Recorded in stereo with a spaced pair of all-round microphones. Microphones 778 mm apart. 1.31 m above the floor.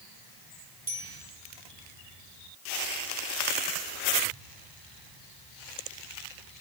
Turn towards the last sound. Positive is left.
turn(degrees=-45)  # may be behind; listen again after turning